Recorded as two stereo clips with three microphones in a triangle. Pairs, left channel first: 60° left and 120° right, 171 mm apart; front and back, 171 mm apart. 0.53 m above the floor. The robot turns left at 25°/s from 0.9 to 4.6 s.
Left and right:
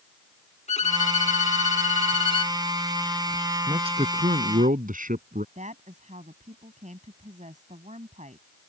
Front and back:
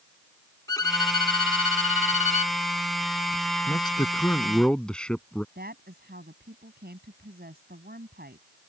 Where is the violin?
55° left; by 2.6 s 15° left.